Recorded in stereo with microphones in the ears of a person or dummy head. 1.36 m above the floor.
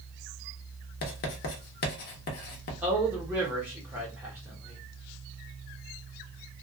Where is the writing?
55° left (ahead or behind), 0.8 m.